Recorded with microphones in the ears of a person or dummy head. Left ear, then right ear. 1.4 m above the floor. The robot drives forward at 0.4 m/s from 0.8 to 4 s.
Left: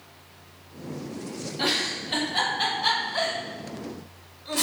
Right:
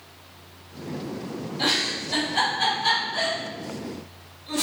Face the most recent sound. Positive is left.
turn(degrees=50)  # may be behind; listen again after turning